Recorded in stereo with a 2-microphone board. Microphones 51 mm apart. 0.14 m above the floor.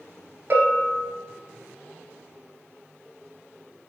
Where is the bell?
40° right (ahead or behind), 1.3 m.